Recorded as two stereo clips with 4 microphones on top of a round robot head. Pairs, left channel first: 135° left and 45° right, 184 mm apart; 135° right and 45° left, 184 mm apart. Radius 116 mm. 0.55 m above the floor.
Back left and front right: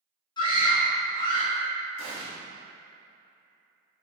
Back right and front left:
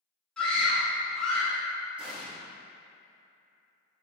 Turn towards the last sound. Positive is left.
turn(degrees=-40)